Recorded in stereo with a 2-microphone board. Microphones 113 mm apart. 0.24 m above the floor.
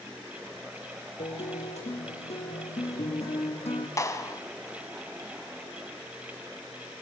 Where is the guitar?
85° left, 3.5 m.